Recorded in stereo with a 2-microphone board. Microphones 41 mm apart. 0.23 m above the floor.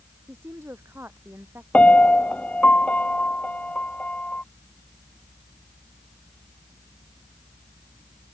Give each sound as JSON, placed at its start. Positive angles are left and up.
{"t": 0.3, "sound": "a woman speaking", "side_deg": -85}
{"t": 1.7, "sound": "a piano", "side_deg": 40}